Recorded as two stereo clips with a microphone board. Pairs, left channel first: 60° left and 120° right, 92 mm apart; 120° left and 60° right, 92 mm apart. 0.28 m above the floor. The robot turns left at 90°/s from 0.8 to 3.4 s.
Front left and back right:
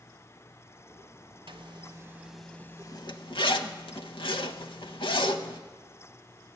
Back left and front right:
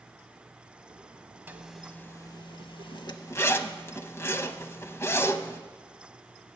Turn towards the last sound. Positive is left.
turn(degrees=60)